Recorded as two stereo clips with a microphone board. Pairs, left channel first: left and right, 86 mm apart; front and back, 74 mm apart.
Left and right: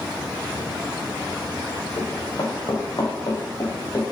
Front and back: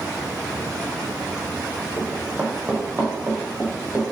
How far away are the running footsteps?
About 3 m.